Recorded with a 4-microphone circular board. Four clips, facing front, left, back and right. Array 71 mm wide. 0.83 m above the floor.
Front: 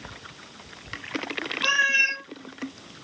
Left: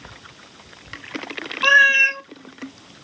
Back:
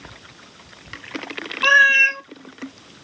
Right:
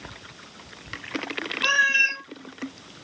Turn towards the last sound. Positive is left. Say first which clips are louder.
# left 7 dB, back 9 dB
turn(degrees=140)